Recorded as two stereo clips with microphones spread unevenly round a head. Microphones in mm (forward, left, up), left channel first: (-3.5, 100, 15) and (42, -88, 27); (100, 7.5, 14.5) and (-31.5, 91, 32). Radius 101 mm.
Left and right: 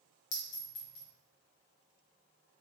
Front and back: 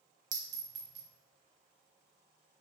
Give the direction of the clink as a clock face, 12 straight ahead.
8 o'clock.